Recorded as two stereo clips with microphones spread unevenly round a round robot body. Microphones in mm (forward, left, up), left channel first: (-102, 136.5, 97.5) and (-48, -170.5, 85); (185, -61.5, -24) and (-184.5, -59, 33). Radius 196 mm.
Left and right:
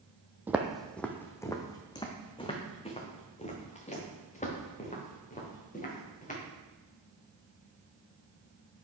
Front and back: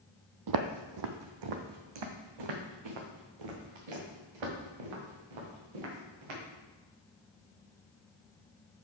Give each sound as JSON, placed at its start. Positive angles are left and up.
{"t": 0.5, "sound": "footsteps", "azimuth_deg": -165, "distance_m": 0.8}